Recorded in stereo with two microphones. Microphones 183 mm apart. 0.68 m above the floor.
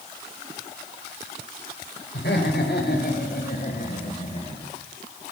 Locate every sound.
2.1 s laughter: 70° left (ahead or behind), 3 m; by 4.7 s 25° left (ahead or behind), 2.5 m